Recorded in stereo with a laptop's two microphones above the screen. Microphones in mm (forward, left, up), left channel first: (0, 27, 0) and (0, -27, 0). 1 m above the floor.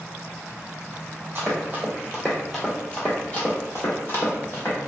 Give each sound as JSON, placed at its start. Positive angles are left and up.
{"t": 1.4, "sound": "running footsteps", "side_deg": -35, "distance_m": 1.2}